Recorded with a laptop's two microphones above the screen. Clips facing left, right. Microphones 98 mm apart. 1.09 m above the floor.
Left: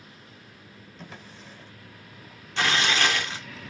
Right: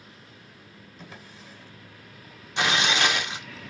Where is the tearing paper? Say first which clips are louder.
Even; 15° right (ahead or behind), 0.9 m.